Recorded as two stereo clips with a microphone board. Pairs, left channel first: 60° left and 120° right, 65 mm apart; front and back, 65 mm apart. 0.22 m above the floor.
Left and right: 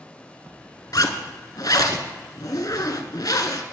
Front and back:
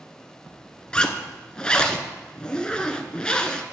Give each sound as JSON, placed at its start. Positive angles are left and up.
{"t": 0.9, "sound": "a zipper", "azimuth_deg": 75, "distance_m": 0.8}